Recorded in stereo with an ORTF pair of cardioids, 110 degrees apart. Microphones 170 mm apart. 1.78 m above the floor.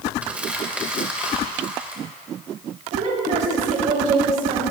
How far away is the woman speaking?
About 4.5 m.